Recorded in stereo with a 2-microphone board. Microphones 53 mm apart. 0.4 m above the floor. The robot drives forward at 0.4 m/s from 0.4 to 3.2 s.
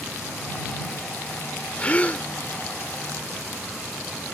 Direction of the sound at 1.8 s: 25° left (ahead or behind).